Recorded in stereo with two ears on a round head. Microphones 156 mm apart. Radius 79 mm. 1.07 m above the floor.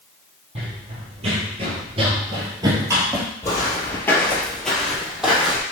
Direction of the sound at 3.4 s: 15° left (ahead or behind).